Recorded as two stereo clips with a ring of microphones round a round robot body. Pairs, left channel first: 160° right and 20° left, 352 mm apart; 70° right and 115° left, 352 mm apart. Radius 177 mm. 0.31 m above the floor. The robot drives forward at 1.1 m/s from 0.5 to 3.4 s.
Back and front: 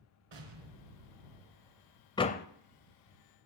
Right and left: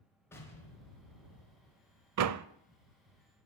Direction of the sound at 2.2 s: 125° left.